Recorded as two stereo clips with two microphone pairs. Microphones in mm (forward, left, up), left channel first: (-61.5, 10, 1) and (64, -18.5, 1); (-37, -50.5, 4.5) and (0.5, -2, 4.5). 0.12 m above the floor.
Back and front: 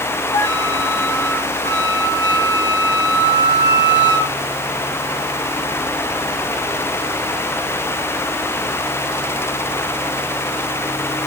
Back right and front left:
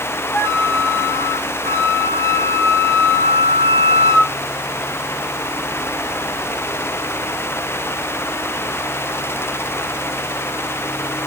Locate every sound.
0.3 s a flute: 150° right, 1.0 m